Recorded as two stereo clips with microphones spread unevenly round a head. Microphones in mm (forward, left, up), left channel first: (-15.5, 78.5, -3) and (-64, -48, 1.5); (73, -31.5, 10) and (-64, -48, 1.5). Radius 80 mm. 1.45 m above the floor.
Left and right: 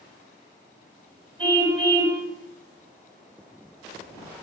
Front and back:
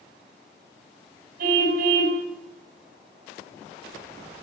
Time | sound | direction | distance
1.4 | a car horn | 150° right | 4.5 m